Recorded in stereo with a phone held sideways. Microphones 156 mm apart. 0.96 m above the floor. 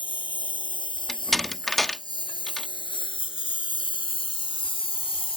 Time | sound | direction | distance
0.0 | a lawn mower | 30° left (ahead or behind) | ?
1.1 | a door slam | centre (ahead or behind) | ?